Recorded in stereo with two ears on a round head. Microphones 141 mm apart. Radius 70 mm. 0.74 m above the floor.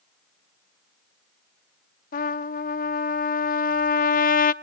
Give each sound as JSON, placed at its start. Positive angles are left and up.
{"t": 2.1, "sound": "a trumpet", "side_deg": 60, "distance_m": 0.6}